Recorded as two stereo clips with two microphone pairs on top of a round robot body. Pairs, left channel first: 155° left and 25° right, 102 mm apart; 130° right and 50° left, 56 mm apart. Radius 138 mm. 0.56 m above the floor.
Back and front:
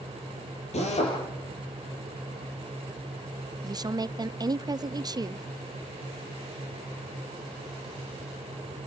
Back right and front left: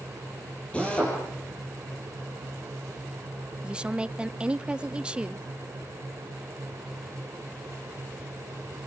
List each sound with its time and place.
0.7 s a drill: 155° left, 7.5 m
3.6 s a woman speaking: 5° right, 1.0 m